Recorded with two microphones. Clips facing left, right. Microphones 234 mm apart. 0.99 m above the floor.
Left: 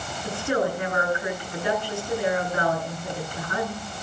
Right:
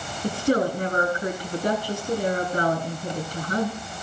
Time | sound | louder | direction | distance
0.2 | a woman speaking | right 3 dB | 40° right (ahead or behind) | 8.5 m